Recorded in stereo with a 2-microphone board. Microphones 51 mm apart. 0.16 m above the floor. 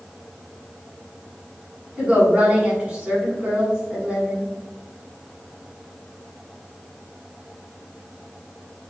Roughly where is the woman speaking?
Right.